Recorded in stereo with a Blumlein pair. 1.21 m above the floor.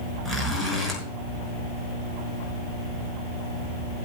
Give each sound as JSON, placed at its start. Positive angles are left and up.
{"t": 0.2, "sound": "a zipper", "azimuth_deg": 0, "distance_m": 6.0}